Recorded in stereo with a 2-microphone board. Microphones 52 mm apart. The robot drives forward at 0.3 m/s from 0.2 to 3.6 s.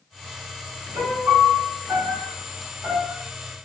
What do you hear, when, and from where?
0.9 s a piano: 70° right (ahead or behind), 1.7 m; by 3.2 s 55° right (ahead or behind), 1.9 m